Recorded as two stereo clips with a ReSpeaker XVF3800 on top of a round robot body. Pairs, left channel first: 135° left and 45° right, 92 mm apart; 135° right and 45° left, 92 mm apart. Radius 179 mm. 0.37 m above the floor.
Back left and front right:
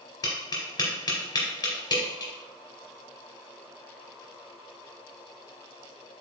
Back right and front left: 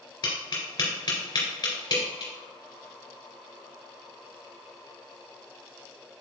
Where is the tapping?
175° right, 2.5 m.